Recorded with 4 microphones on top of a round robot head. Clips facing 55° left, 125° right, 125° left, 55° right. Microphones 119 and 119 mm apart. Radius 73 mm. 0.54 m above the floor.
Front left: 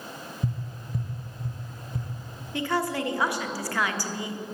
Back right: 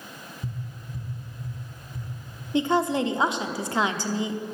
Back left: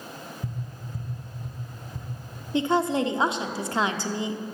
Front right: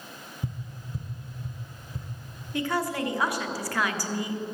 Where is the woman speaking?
Straight behind, 1.0 m.